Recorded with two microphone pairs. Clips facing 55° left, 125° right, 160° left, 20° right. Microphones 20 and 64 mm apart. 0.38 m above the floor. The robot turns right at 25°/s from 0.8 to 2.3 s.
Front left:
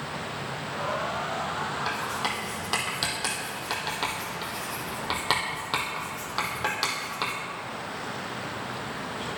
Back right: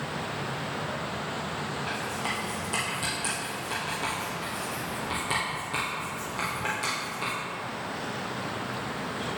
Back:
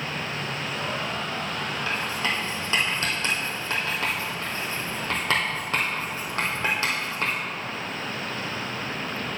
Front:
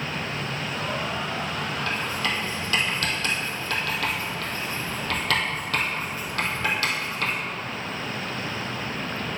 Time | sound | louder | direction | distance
1.9 | writing | front left 2 dB, back 1 dB | 80° left | 2 m